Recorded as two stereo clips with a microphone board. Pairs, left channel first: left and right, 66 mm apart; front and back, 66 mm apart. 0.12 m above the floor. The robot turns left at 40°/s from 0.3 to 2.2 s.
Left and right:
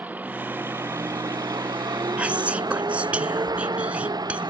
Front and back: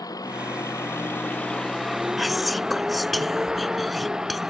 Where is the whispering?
90° right; by 4.5 s 95° right.